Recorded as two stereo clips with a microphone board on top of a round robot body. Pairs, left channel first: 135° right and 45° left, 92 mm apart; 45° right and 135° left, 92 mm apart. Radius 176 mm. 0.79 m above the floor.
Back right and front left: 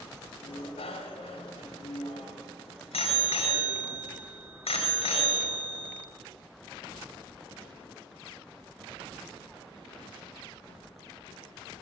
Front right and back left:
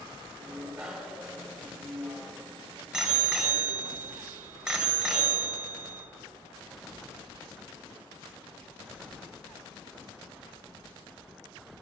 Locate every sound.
0.4 s a bicycle bell: 145° right, 2 m